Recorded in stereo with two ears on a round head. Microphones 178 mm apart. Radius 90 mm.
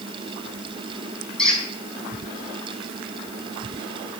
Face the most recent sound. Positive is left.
turn(degrees=5)  # may be behind; listen again after turning